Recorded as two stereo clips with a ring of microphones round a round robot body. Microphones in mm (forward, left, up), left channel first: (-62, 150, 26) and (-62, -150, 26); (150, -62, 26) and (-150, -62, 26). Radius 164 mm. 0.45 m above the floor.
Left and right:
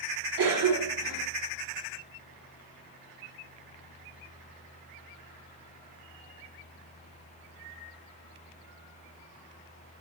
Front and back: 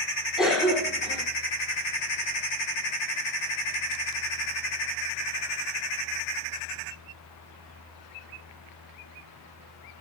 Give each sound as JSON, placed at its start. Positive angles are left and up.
{"t": 0.4, "sound": "a cough", "azimuth_deg": -90, "distance_m": 2.0}